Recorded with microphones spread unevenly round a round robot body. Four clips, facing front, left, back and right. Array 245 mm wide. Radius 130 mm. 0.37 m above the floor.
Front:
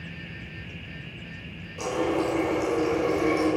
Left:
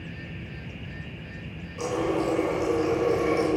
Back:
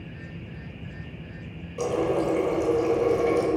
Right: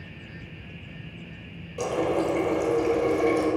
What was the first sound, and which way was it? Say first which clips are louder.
A running tap: right 1 dB, back 1 dB; 125° right.